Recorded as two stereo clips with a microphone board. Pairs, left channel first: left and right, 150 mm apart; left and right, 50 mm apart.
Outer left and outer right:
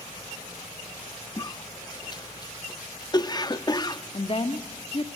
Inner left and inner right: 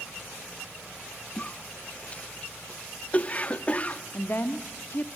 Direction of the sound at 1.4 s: 30° left (ahead or behind).